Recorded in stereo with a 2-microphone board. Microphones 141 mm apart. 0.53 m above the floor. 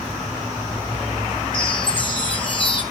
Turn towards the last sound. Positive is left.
turn(degrees=35)  # may be behind; listen again after turning